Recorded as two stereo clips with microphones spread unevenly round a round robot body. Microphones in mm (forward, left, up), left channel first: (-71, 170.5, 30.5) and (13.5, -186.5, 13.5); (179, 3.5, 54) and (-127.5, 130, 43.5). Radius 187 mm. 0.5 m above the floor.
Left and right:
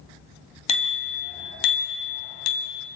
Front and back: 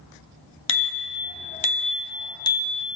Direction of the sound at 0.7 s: 30° left.